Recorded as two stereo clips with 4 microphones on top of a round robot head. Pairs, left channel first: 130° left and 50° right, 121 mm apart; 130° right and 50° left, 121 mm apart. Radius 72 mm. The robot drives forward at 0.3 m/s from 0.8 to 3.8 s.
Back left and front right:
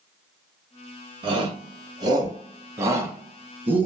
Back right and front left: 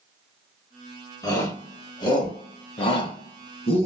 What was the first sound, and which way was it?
A shout, 80° right.